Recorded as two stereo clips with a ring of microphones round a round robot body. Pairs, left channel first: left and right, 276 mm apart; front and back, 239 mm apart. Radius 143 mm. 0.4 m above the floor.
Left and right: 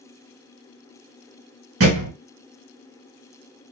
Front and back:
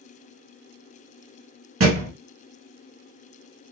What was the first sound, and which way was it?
A thud, 135° right.